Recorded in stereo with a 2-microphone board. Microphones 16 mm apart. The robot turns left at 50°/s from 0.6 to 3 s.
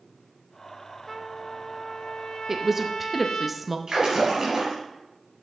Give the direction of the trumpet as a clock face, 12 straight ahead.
6 o'clock.